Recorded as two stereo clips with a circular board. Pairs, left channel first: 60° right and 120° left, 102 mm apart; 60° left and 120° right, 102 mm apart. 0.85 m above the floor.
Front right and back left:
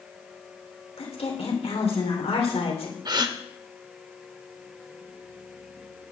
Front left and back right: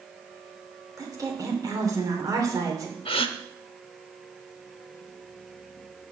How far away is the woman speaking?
About 3 m.